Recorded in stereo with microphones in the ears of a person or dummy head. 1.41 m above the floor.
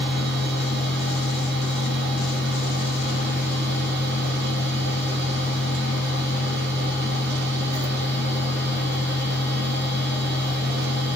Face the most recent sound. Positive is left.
turn(degrees=-55)  # may be behind; listen again after turning